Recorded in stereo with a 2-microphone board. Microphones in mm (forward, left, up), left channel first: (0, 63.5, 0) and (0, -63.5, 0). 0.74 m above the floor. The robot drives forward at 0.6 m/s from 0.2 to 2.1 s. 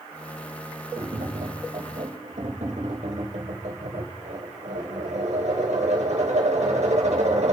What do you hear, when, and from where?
1.0 s tapping: 55° right (ahead or behind), 4 m; by 7.5 s 65° right (ahead or behind), 3.5 m